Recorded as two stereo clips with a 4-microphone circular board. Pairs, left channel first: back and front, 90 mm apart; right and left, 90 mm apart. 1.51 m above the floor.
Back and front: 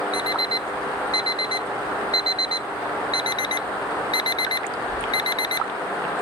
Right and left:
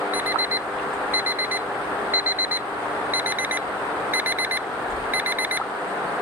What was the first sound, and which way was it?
An alarm clock, 155° left.